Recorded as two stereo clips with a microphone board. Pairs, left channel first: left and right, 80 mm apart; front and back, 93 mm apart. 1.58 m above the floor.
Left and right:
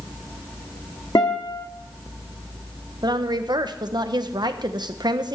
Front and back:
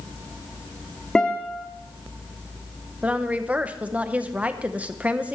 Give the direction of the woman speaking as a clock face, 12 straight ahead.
4 o'clock.